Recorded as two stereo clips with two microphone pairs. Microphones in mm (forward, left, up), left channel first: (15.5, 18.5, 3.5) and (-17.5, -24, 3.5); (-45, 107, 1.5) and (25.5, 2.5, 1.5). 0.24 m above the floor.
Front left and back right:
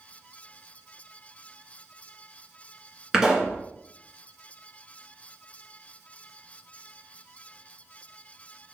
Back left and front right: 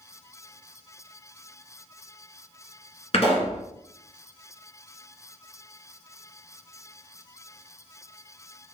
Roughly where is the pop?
Behind left.